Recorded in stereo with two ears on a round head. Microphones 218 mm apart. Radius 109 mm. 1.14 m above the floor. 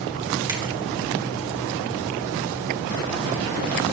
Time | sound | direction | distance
0.5 | a finger snap | 20° right (ahead or behind) | 2.5 m